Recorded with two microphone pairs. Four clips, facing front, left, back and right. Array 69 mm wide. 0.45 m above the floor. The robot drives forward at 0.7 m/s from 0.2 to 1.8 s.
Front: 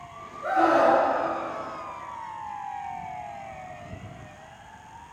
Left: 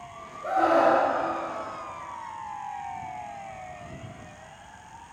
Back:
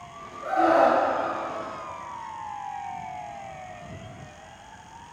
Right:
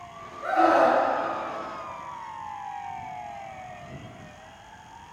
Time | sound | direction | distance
0.4 | a scream | 60° right | 5.5 m